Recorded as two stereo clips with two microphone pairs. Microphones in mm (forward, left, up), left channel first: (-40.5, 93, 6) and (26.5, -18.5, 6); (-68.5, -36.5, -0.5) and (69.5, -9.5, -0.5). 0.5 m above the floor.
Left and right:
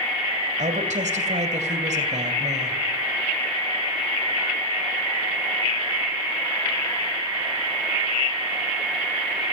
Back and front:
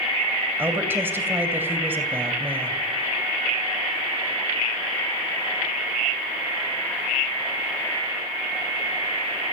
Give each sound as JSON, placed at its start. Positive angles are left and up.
{"t": 0.6, "sound": "a woman speaking", "azimuth_deg": -60, "distance_m": 2.5}